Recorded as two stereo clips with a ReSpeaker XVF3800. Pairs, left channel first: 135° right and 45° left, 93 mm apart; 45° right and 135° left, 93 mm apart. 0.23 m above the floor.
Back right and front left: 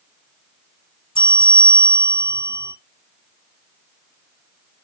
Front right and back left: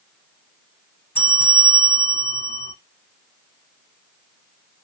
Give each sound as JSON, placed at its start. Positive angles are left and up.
{"t": 1.1, "sound": "a bell", "azimuth_deg": -110, "distance_m": 1.6}